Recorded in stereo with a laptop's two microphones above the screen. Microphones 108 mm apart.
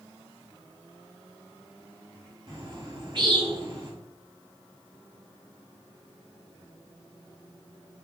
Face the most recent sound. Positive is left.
turn(degrees=-45)  # may be behind; listen again after turning